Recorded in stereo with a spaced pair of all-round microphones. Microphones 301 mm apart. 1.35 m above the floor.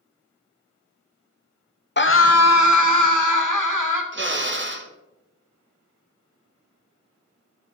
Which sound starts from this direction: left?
A scream, at 2.0 s.